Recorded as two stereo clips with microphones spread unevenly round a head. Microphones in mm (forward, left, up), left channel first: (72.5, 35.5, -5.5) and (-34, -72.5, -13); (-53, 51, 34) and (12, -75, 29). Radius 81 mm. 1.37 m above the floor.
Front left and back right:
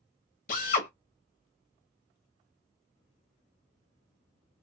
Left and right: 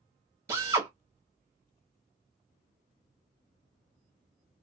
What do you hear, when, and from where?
0.5 s a drill: 10° left, 1.0 m